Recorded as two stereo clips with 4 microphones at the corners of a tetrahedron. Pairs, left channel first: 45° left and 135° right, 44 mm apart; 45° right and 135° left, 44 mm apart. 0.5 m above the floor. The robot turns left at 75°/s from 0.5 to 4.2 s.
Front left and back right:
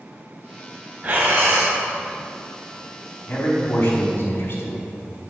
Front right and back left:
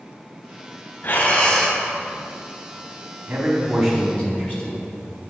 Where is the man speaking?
85° left, 4 m; by 4.9 s 15° left, 4 m.